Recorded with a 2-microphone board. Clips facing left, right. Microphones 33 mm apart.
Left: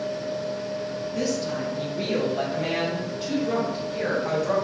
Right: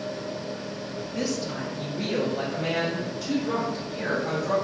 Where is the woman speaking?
10° right (ahead or behind), 0.6 m; by 4.5 s 40° left (ahead or behind), 2.5 m.